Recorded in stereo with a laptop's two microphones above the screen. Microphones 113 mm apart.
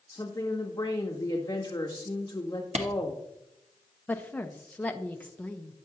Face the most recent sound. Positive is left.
turn(degrees=15)  # may be behind; listen again after turning